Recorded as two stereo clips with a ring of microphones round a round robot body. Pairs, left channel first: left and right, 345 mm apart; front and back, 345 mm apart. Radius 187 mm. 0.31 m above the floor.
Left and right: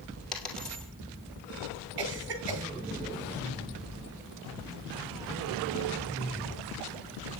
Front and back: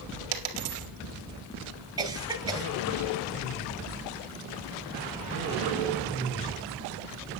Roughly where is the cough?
Right.